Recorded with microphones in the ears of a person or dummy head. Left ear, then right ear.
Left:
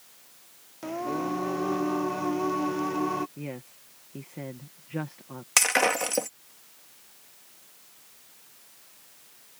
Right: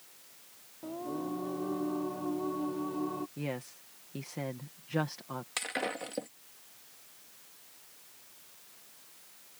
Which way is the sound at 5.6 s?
50° left (ahead or behind).